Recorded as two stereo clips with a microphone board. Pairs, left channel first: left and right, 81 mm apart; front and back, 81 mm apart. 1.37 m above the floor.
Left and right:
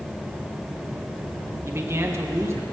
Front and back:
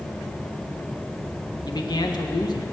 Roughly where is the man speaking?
Ahead right.